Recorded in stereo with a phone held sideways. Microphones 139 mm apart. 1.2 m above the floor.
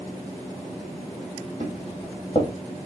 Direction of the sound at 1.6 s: 45° left (ahead or behind).